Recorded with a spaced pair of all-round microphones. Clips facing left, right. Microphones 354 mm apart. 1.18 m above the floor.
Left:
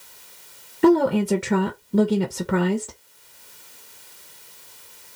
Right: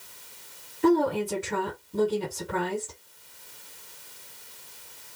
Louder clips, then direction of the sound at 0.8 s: Left 6 dB; 80° left.